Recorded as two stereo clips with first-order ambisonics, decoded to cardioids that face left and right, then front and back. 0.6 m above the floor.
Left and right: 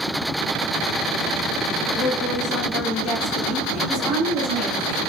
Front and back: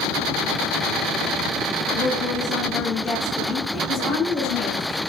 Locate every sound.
1.9 s a woman speaking: 35° left, 0.8 m
3.9 s a woman speaking: 55° right, 1.7 m